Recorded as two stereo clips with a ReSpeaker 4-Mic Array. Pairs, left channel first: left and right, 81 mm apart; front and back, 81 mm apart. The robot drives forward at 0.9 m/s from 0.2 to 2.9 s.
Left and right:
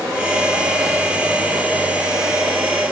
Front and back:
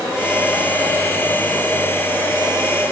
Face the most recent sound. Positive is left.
No sound to turn to.